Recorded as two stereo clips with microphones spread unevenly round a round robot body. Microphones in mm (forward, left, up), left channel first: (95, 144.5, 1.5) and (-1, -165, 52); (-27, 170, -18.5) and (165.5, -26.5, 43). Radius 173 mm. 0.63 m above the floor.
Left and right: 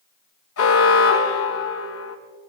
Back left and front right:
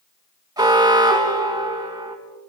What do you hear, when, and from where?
0.6 s an alarm: 30° left, 4 m